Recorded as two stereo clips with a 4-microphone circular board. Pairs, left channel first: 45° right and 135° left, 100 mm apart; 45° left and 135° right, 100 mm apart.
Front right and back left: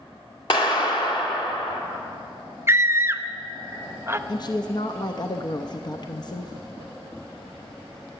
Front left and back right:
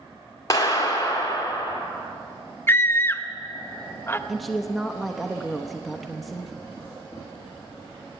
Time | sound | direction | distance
0.5 | a clap | 10° right | 1.9 m
2.7 | a scream | 90° left | 0.6 m
4.3 | a woman speaking | 45° right | 0.7 m